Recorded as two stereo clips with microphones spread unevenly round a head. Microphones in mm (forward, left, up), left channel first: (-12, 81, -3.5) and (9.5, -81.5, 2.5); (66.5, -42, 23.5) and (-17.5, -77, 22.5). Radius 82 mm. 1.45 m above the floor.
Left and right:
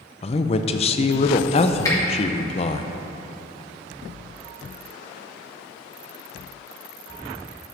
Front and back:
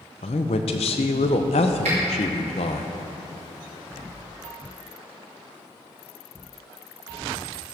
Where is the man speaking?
45° left, 0.6 m.